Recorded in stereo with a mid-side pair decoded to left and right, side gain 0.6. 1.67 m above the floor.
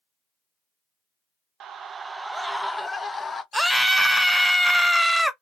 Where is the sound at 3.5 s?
5° right, 0.8 m.